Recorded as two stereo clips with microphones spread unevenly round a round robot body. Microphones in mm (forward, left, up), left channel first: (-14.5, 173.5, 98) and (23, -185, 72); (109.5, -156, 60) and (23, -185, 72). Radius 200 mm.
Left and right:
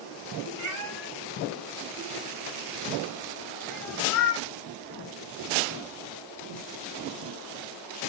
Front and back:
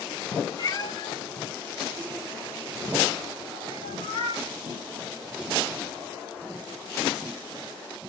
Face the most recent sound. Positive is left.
turn(degrees=60)